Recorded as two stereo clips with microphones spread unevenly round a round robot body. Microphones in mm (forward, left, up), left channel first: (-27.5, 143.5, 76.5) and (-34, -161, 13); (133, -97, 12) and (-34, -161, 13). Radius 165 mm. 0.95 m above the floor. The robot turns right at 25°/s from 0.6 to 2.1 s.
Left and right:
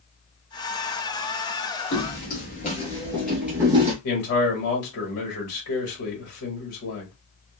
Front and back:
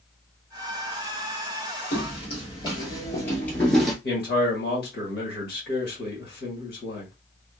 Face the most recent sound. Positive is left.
turn(degrees=45)